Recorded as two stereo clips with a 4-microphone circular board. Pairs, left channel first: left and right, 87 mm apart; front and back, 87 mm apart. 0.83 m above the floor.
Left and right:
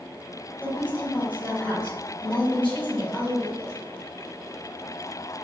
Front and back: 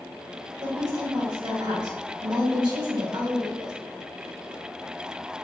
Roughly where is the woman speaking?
Behind.